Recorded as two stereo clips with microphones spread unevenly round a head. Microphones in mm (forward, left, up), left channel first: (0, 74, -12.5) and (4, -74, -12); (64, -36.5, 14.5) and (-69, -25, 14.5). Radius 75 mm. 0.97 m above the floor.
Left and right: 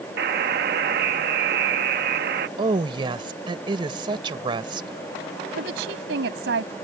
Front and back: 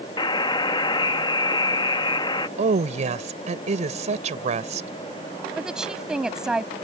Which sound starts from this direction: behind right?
A woman speaking, at 2.6 s.